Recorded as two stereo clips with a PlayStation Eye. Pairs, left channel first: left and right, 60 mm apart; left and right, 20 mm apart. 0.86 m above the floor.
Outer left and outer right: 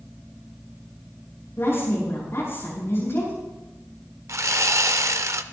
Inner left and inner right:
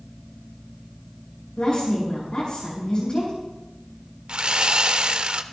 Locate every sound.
1.6 s a woman speaking: 45° left (ahead or behind), 6.5 m
4.3 s sawing: 55° right (ahead or behind), 0.7 m